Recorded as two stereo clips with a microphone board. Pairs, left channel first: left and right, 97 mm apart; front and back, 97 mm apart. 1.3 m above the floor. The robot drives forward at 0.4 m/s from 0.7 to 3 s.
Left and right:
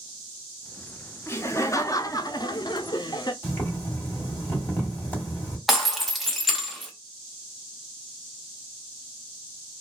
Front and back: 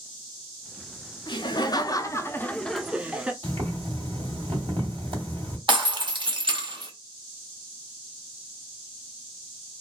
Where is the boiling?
160° left, 2.0 m.